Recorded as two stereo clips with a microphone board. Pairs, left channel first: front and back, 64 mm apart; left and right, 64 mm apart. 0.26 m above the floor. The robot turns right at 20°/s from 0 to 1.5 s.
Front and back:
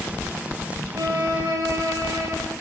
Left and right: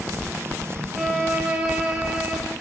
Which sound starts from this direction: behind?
A violin, at 0.9 s.